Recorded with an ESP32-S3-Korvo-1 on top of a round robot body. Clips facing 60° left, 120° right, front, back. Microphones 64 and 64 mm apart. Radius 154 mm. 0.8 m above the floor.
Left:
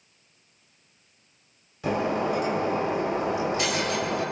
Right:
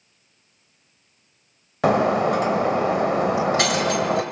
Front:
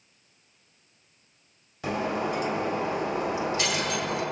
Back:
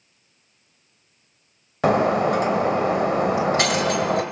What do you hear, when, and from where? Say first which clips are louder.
1.8 s breaking glass: right 7 dB, back 10 dB; 145° right, 2.0 m